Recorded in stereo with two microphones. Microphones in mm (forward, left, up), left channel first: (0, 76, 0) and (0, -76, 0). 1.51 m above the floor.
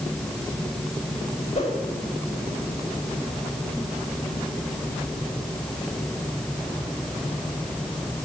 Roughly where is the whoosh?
Left.